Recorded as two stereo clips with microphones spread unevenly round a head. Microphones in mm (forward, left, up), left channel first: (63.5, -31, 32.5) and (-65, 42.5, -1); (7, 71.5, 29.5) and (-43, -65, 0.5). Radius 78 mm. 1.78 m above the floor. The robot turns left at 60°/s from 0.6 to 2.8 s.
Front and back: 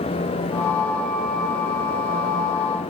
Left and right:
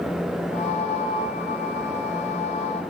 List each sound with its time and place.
Only background noise.